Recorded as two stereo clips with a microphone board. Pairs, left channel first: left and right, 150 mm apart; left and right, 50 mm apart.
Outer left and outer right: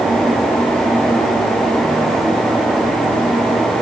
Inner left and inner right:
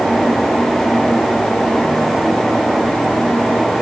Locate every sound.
Only background noise.